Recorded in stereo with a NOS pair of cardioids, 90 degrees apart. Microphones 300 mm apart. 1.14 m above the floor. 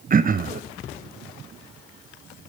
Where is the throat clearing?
30° right, 0.7 m.